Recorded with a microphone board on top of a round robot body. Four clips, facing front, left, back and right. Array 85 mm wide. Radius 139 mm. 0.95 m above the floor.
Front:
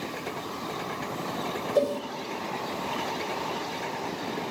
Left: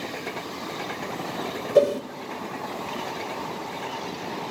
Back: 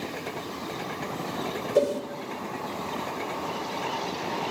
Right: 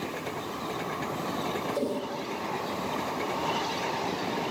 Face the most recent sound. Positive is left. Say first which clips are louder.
# left 15 dB, back 2 dB
turn(degrees=105)